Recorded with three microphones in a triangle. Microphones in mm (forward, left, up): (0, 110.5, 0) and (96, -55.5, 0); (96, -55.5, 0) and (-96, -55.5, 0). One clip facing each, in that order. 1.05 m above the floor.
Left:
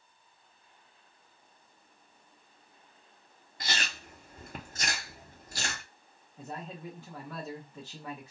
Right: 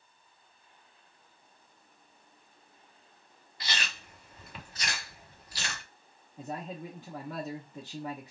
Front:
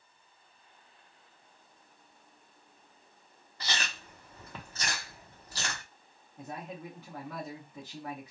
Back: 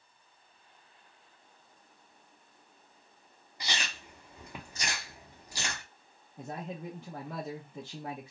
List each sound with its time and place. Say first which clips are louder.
3.6 s chewing: left 2 dB, front 1 dB; 110° left, 0.6 m
6.4 s a man speaking: right 3 dB, back 2 dB; 125° right, 0.7 m